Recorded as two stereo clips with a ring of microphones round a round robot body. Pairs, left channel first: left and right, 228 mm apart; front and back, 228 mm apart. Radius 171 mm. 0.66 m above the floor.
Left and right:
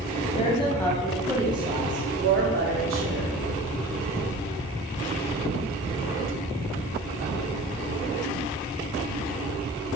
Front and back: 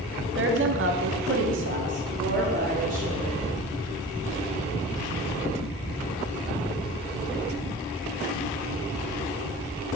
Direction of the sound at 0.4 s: 155° left.